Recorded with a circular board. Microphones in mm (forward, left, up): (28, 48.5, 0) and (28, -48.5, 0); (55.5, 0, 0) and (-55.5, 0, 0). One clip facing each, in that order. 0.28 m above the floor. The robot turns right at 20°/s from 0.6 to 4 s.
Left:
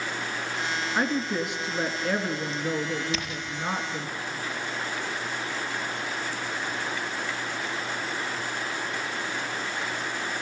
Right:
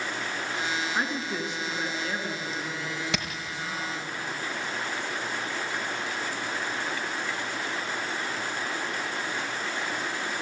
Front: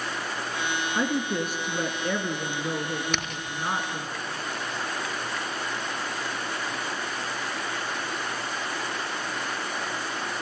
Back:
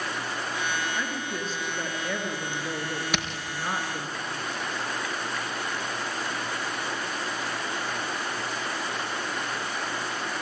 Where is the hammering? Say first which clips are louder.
Even, back 1 dB; 95° right, 4 m.